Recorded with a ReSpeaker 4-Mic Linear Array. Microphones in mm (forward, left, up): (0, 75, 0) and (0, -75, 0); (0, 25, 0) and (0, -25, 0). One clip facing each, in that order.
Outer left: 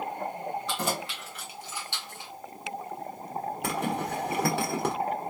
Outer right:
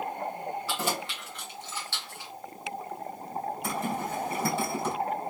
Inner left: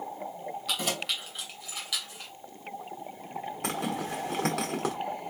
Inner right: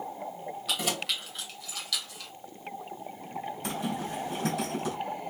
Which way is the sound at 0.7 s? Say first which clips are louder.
Even, inner right 1 dB; 5° right (ahead or behind).